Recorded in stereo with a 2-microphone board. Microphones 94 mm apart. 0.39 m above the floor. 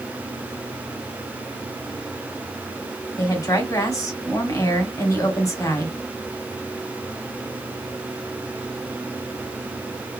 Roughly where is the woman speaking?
Left.